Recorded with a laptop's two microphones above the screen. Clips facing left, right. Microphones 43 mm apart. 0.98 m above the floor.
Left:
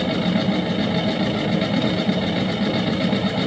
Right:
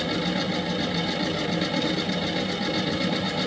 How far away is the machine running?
About 0.9 m.